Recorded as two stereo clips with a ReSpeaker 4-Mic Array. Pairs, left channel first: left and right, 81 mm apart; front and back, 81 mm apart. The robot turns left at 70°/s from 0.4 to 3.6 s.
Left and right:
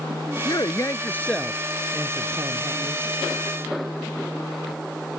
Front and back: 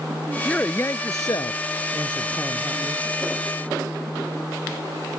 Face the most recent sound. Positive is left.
turn(degrees=-145)